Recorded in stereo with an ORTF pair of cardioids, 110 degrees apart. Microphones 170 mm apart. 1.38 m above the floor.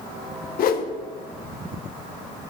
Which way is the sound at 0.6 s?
60° left.